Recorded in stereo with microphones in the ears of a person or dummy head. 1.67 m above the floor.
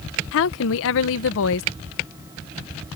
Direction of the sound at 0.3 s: 65° left (ahead or behind).